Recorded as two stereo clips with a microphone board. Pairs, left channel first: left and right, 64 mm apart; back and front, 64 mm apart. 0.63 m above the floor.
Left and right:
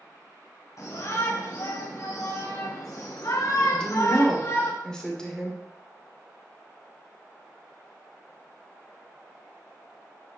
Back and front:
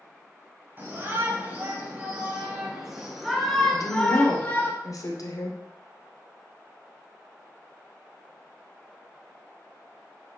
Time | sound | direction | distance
0.8 | a shout | 60° left | 4.5 m
3.7 | a woman speaking | 170° left | 2.0 m